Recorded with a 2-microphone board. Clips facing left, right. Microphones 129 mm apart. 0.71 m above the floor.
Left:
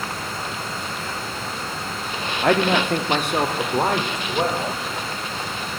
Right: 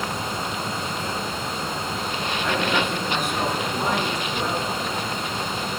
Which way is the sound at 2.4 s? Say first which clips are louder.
Left 6 dB; 60° left (ahead or behind).